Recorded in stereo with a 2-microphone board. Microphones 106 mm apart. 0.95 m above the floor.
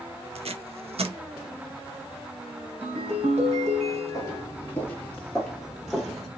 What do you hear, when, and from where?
0.3 s tape being pulled: 70° right (ahead or behind), 0.5 m
2.8 s a ringtone: 85° right, 1.7 m
4.1 s footsteps: 30° left (ahead or behind), 1.0 m; by 6.3 s 5° right (ahead or behind), 1.4 m